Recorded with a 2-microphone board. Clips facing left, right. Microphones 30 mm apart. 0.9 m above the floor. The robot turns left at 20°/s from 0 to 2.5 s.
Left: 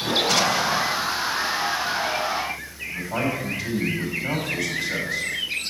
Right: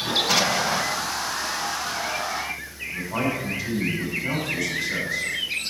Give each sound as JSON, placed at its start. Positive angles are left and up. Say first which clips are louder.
{"t": 0.3, "sound": "an explosion", "louder": "even", "side_deg": 0, "distance_m": 0.7}
{"t": 2.9, "sound": "a man speaking", "louder": "even", "side_deg": 45, "distance_m": 5.5}